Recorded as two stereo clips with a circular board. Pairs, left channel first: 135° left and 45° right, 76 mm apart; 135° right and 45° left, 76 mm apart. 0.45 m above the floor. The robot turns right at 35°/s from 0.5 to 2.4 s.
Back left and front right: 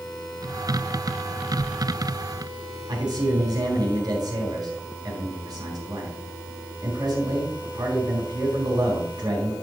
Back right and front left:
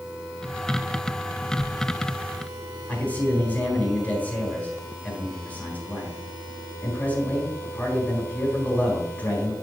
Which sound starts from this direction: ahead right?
A man speaking, at 2.9 s.